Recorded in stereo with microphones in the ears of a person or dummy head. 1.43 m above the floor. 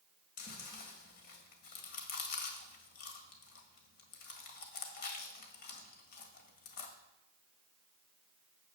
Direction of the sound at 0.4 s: 50° left (ahead or behind).